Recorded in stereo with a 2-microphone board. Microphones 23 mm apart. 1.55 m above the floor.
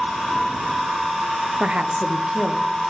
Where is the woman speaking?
55° right (ahead or behind), 0.9 m; by 2.7 s 35° right (ahead or behind), 2 m.